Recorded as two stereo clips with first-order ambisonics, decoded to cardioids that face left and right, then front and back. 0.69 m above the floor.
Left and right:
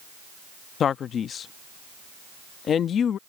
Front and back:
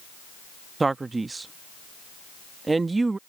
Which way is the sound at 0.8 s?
115° left.